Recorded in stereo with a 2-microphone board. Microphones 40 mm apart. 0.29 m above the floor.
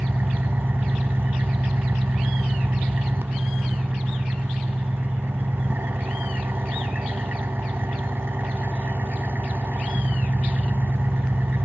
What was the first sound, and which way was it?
An engine running, 70° right (ahead or behind).